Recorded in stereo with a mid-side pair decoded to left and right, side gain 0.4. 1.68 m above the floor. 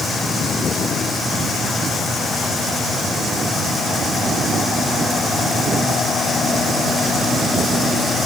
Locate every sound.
Only background noise.